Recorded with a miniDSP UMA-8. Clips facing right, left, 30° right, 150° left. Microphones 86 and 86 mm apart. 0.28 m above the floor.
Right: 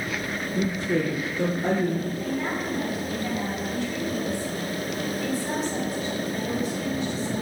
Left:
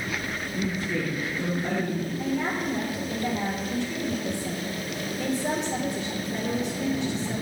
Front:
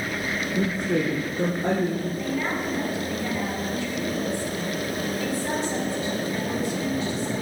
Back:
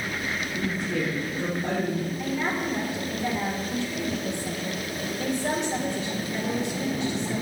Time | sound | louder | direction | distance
0.6 | a woman speaking | right 4 dB, front 5 dB | 40° right | 3.5 m
2.2 | a woman speaking | left 1 dB, front 1 dB | 80° left | 5 m